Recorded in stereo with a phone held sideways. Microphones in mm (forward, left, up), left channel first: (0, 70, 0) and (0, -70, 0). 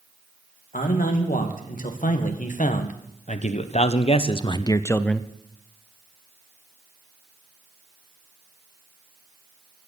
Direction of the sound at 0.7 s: 75° left (ahead or behind).